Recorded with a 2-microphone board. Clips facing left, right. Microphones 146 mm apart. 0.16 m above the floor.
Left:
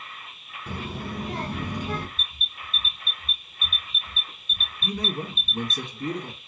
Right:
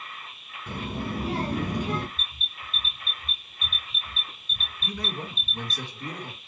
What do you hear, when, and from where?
0.7 s a child speaking: 5° left (ahead or behind), 0.9 m; by 2.1 s 65° right (ahead or behind), 1.9 m
2.2 s an alarm: 35° right (ahead or behind), 2.5 m
4.8 s a man speaking: 25° left (ahead or behind), 1.8 m